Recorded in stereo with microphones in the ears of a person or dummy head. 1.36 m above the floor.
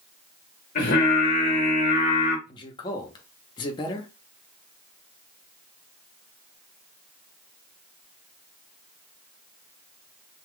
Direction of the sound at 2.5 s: 25° left (ahead or behind).